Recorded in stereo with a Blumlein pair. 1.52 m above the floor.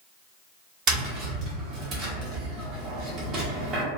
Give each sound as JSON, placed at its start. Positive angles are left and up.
{"t": 0.9, "sound": "tapping", "azimuth_deg": -25, "distance_m": 1.0}